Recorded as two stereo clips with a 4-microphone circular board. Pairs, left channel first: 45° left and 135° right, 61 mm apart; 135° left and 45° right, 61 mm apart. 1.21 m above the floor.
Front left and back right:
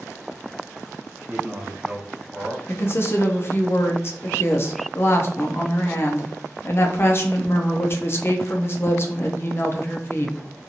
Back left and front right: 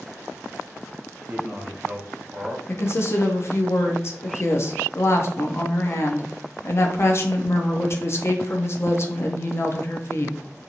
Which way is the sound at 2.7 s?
95° left.